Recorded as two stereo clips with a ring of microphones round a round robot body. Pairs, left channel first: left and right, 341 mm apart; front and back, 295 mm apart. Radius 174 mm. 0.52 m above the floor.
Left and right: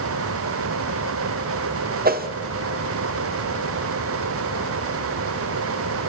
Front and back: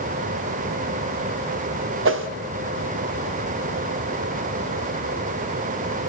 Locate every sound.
2.0 s a whoosh: 145° right, 1.2 m